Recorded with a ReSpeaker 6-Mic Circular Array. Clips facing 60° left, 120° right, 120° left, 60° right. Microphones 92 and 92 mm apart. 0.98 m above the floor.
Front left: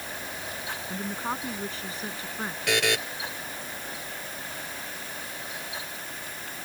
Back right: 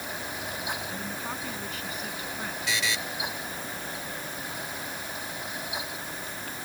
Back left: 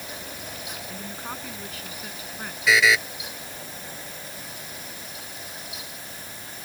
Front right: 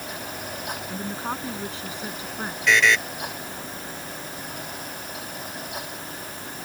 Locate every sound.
0.9 s a woman speaking: straight ahead
2.7 s a buzzer: 35° left